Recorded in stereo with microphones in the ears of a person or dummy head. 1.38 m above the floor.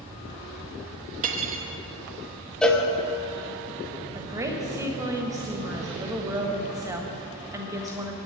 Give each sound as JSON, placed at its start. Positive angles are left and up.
{"t": 1.2, "sound": "cutlery clinking", "side_deg": -40, "distance_m": 0.9}
{"t": 2.6, "sound": "a cowbell", "side_deg": 0, "distance_m": 1.0}
{"t": 4.2, "sound": "a woman speaking", "side_deg": -10, "distance_m": 1.3}